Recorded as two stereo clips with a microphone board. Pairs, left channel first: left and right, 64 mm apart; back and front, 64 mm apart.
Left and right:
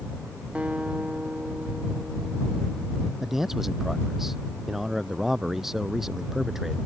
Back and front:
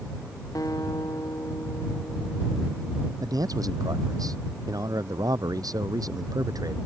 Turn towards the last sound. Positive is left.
turn(degrees=-5)